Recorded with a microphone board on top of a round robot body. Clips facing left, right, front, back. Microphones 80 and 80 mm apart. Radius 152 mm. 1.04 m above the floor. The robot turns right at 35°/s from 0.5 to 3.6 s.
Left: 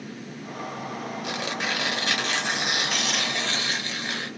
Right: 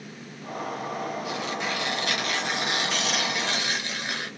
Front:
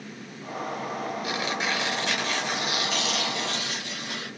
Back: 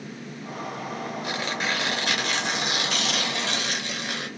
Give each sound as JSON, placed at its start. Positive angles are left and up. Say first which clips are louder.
{"t": 1.2, "sound": "tearing paper", "louder": "even, back 1 dB", "azimuth_deg": 115, "distance_m": 4.0}